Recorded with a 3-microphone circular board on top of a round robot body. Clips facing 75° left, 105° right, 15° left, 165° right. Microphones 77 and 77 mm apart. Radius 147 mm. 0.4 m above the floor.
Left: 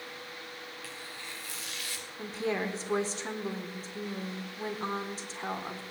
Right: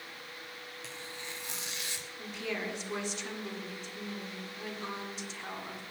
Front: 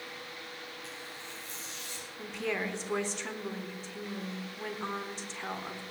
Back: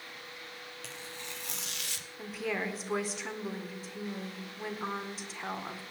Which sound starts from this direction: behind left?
A woman speaking, at 2.2 s.